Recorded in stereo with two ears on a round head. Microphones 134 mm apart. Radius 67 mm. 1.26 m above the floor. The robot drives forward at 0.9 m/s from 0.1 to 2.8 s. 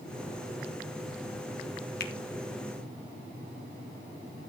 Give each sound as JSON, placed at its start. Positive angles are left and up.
{"t": 2.0, "sound": "a finger snap", "side_deg": 70, "distance_m": 1.6}